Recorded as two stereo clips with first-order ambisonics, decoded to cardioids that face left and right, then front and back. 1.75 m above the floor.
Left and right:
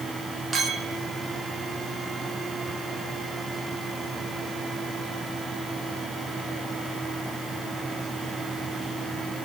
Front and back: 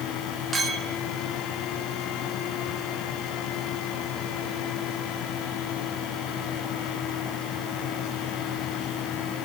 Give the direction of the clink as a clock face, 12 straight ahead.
4 o'clock.